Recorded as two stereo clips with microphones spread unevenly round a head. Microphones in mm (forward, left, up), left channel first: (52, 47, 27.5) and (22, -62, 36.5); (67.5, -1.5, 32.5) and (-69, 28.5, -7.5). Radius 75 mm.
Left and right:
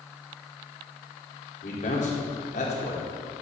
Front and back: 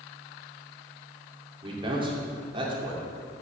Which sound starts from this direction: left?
A man speaking, at 1.6 s.